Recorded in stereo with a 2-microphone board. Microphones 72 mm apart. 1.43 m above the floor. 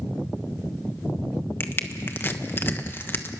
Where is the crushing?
30° left (ahead or behind), 1.2 m.